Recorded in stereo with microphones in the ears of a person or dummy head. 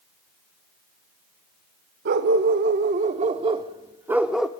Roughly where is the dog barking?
Right.